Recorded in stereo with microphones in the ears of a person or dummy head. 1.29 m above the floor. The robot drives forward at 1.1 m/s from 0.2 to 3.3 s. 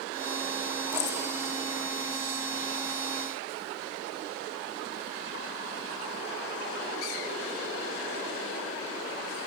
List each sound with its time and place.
0.9 s keys jangling: 60° left (ahead or behind), 3 m; by 1.2 s 55° left (ahead or behind), 3.5 m